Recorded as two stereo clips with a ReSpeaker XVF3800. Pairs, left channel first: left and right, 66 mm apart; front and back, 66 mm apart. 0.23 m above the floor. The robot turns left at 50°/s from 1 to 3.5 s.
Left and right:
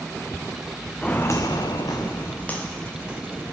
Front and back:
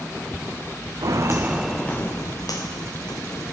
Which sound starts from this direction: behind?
Footsteps, at 1.0 s.